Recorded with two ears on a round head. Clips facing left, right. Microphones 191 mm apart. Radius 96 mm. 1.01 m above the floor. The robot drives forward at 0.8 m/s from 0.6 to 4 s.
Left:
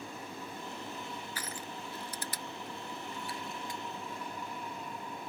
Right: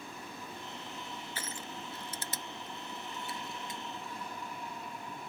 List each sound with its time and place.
1.4 s crushing: 25° right (ahead or behind); by 3.8 s 20° right (ahead or behind)